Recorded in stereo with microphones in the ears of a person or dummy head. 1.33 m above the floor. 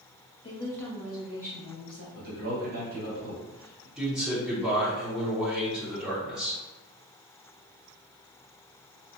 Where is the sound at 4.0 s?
Centre (ahead or behind), 1.0 m.